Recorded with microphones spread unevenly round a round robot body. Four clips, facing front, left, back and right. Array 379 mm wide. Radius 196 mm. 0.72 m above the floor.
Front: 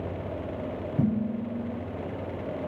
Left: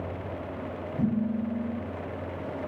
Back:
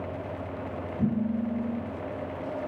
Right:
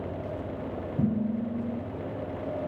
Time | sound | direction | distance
1.0 | dishes clattering | 15° right | 5 m